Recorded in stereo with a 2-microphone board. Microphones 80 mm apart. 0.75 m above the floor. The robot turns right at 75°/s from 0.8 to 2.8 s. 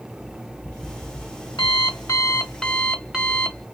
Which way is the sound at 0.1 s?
40° left.